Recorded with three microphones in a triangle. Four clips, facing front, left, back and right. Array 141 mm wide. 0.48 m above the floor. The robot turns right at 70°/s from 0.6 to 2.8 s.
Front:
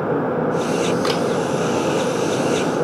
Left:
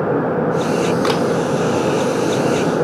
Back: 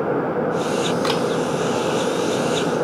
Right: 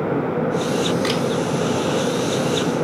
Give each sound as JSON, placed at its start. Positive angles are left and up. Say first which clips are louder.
{"t": 1.0, "sound": "a camera shutter", "louder": "left 5 dB, front 1 dB", "azimuth_deg": 105, "distance_m": 0.7}